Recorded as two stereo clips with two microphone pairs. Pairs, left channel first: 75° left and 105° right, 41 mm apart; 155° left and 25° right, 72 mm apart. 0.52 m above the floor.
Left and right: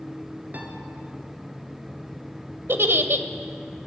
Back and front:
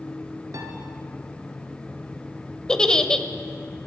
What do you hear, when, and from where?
0.5 s a piano: 60° right, 1.3 m
2.7 s a giggle: 125° right, 0.5 m